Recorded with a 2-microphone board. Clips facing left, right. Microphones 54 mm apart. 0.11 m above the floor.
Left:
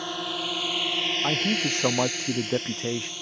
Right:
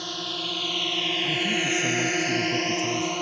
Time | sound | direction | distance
0.0 | a drone | 15° left (ahead or behind) | ?
1.2 | a man speaking | 55° left (ahead or behind) | ?